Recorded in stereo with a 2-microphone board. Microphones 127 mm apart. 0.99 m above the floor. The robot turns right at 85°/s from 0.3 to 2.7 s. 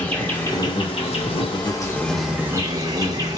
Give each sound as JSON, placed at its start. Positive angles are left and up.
{"t": 0.0, "sound": "an insect", "azimuth_deg": 15, "distance_m": 0.7}